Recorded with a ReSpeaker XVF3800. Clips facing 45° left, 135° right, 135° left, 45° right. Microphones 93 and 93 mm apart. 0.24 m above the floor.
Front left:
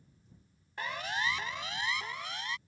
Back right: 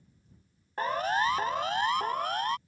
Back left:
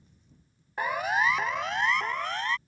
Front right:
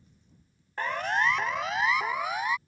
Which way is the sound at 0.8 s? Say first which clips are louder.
Back right 8 dB, back left 1 dB; 150° right.